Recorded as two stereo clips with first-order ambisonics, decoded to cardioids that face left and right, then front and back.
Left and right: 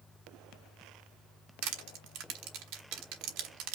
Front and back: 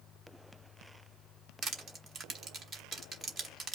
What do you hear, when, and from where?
1.6 s crushing: 110° right, 1.2 m